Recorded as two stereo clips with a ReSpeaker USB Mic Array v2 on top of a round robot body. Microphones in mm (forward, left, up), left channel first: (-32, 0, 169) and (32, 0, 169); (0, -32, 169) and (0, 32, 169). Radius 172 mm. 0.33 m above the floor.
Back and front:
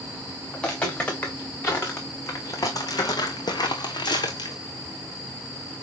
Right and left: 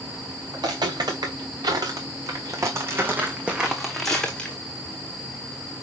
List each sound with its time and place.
0.5 s footsteps: 110° left, 3 m; by 4.6 s 160° right, 1.6 m